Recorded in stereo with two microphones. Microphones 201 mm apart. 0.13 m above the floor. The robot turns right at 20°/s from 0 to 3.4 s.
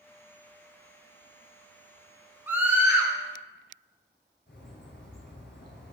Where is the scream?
10° right (ahead or behind), 1.1 m; by 3.1 s 5° right (ahead or behind), 1.1 m.